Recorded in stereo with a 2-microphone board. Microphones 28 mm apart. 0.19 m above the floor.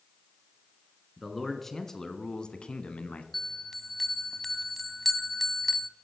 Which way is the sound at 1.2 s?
5° left (ahead or behind).